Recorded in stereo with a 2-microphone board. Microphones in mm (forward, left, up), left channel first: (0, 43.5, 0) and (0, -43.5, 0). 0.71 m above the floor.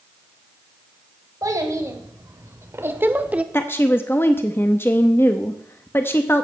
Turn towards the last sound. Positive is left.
turn(degrees=25)  # may be behind; listen again after turning